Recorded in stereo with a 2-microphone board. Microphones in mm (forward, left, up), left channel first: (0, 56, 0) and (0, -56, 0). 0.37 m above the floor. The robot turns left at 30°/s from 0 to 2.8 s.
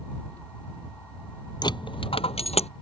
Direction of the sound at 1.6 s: 40° left (ahead or behind).